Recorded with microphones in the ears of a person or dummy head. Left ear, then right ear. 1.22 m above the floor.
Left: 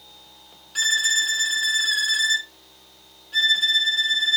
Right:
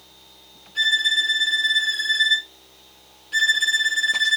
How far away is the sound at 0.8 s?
About 0.7 m.